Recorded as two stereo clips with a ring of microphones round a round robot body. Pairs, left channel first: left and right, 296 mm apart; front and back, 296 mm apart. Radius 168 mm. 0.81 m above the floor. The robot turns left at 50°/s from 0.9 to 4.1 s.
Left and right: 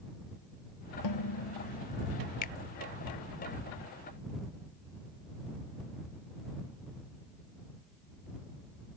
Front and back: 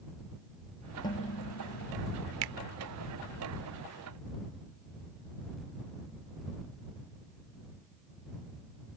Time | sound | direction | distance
1.0 | dishes clattering | 80° left | ?
2.4 | a finger snap | 155° left | ?